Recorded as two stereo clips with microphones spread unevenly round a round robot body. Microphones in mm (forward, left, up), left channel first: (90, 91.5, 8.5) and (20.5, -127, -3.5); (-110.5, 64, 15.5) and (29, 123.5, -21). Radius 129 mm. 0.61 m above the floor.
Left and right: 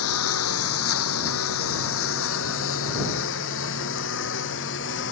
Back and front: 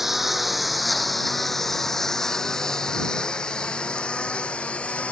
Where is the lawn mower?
110° left; by 5.1 s 120° left.